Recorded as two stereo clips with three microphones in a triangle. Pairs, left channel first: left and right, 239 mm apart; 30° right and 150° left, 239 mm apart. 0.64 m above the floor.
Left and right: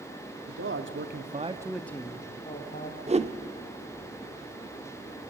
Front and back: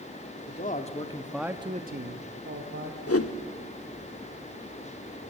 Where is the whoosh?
25° right, 0.9 m.